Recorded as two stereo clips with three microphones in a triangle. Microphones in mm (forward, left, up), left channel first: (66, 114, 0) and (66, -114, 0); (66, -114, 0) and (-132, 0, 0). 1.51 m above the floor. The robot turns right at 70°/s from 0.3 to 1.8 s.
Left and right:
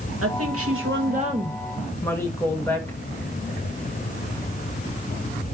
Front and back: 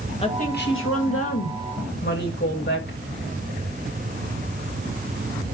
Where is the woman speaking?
95° right, 1.9 m; by 3.0 s 10° left, 1.9 m.